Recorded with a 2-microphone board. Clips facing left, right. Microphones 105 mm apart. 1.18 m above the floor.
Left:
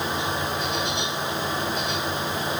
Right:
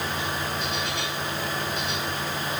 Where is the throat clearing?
No throat clearing in this recording.